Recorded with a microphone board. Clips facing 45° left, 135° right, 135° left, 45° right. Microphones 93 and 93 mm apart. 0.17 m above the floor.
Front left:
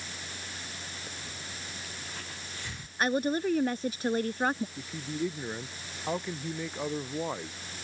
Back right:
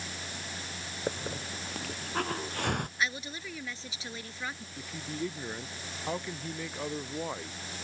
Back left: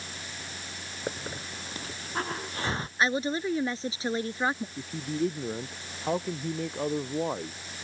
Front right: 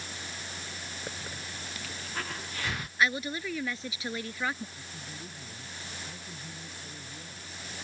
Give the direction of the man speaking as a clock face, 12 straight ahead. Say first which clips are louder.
Front left 3 dB, back left 15 dB; 8 o'clock.